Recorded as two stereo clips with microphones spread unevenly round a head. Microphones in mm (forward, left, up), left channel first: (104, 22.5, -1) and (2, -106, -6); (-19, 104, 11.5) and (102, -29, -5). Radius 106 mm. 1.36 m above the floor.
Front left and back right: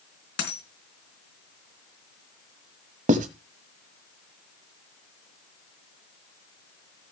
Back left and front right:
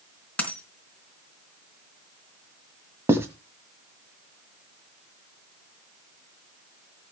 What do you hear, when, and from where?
0.4 s a dropped coin: 50° left, 4 m
3.1 s writing: 125° right, 1.5 m